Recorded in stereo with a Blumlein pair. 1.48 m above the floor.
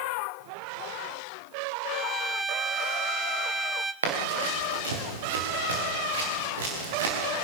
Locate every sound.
1.9 s a violin: 10° right, 0.9 m
4.0 s running footsteps: 65° right, 7 m